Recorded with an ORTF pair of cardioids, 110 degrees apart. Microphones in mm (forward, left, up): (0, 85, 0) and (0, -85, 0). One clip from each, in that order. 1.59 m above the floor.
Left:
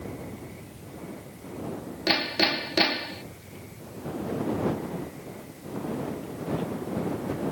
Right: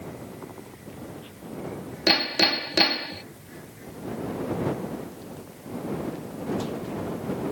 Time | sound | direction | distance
2.1 | hammering | 30° right | ?